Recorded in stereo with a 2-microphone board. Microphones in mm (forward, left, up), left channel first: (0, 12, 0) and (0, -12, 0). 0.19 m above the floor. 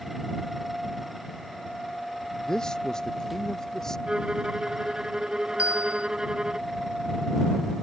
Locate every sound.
2.5 s a man speaking: 30° left (ahead or behind); by 4.0 s 20° left (ahead or behind)
4.1 s a violin: 35° right (ahead or behind)
5.6 s a bell: 65° right (ahead or behind)